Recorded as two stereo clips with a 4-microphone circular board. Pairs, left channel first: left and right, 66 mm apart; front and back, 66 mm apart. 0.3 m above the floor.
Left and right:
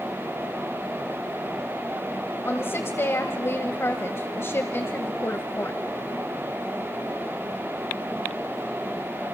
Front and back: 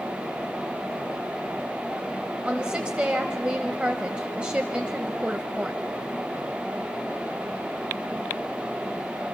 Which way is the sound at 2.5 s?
110° left.